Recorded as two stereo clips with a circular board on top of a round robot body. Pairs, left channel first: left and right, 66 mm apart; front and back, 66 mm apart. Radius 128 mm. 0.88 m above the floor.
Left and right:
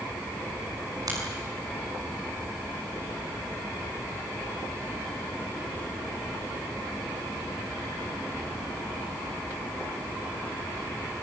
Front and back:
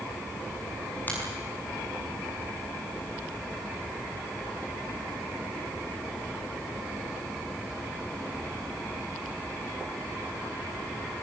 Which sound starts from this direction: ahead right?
A finger snap, at 1.1 s.